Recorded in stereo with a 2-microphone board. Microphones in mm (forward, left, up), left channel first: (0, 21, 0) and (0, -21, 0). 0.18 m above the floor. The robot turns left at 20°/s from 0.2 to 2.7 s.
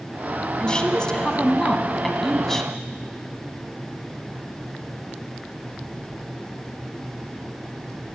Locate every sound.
0.6 s a woman speaking: 20° left (ahead or behind), 1.3 m; by 2.7 s 10° left (ahead or behind), 1.3 m